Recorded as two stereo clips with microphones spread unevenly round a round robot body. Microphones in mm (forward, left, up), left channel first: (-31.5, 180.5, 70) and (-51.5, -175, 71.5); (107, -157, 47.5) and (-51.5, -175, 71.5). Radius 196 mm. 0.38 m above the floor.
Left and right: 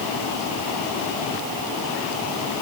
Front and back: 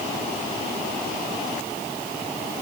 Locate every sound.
Only background noise.